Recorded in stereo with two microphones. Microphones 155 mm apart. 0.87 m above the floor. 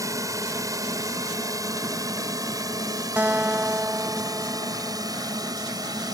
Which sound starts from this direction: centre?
A guitar, at 3.2 s.